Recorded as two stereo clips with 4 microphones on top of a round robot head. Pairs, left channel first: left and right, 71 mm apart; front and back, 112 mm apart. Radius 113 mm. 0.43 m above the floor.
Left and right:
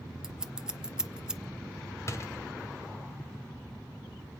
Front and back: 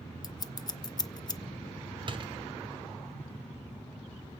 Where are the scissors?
15° right, 1.2 m.